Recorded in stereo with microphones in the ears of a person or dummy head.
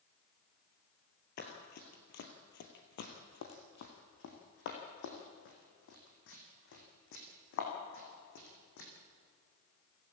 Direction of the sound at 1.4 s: 40° left (ahead or behind).